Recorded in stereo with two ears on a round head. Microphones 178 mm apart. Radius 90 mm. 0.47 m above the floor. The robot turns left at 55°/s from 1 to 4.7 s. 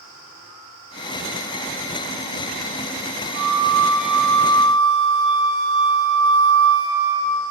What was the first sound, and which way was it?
A flute, 135° right.